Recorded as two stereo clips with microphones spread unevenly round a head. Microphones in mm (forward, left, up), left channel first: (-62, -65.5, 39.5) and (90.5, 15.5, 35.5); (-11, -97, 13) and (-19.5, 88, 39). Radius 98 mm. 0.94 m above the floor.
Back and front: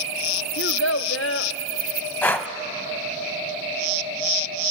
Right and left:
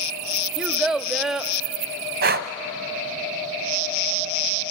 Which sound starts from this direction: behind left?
Breathing, at 2.2 s.